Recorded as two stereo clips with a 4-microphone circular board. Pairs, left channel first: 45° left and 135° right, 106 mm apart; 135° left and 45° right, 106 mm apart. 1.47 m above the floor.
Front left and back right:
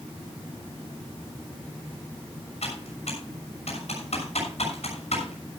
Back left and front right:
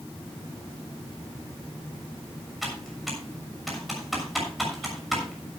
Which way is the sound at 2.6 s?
45° left.